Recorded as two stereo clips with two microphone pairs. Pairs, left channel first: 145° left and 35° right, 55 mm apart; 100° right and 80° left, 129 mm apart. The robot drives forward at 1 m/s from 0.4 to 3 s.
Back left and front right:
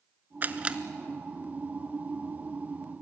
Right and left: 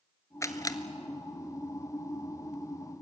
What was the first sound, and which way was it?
A camera shutter, 50° right.